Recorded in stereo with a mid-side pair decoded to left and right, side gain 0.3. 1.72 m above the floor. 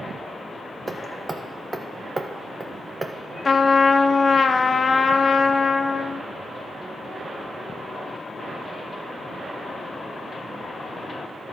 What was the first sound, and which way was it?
Hammering, 30° right.